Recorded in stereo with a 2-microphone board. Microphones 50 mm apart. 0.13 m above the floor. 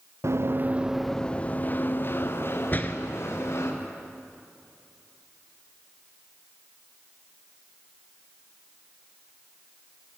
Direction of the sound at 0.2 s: 60° right (ahead or behind).